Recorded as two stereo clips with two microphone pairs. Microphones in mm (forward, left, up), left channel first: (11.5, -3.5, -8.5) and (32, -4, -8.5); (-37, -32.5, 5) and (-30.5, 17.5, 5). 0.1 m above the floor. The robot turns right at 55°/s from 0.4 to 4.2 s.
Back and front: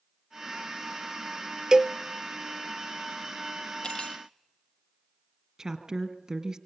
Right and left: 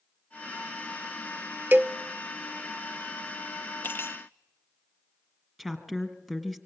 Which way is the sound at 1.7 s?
45° left.